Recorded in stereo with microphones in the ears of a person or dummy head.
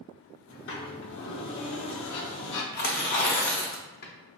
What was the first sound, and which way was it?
A sliding door, 75° left (ahead or behind).